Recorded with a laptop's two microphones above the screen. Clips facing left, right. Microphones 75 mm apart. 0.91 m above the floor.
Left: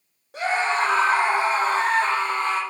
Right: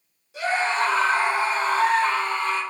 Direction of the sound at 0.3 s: 55° left (ahead or behind).